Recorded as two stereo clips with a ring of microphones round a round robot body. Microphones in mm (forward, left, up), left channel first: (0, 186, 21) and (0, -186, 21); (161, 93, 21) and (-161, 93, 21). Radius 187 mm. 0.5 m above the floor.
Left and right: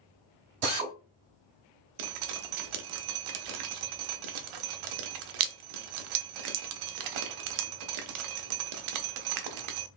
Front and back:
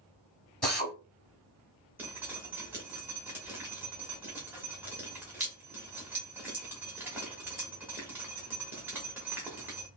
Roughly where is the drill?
Right.